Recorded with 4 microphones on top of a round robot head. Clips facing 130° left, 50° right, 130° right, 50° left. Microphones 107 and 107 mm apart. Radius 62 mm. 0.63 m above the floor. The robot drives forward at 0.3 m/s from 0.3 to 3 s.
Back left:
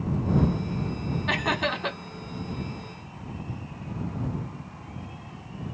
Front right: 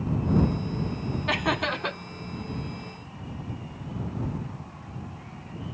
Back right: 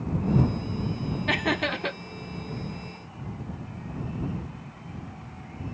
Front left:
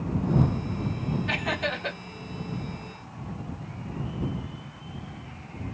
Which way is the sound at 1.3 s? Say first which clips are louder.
Front right 1 dB, back right 3 dB; 135° right.